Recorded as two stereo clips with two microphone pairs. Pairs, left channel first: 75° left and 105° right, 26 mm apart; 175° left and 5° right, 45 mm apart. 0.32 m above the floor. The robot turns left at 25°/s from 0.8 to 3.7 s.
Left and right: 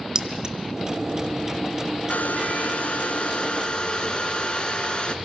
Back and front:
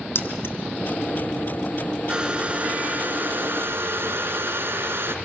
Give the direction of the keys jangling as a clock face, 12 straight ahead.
6 o'clock.